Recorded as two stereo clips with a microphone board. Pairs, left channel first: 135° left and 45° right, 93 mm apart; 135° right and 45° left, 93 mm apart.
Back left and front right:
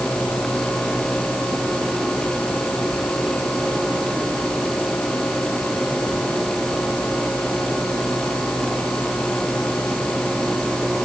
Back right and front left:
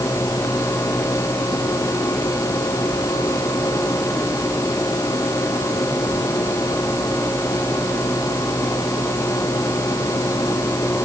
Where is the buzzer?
I don't hear a buzzer.